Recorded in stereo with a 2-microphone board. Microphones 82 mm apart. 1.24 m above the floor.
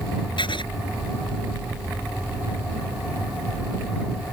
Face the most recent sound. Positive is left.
turn(degrees=80)